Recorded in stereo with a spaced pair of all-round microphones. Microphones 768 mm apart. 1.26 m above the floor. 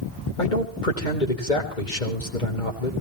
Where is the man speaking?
80° left, 4 m.